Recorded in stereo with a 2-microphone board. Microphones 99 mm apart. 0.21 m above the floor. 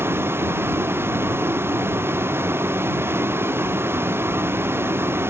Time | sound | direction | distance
0.0 | a vehicle | 25° right (ahead or behind) | ?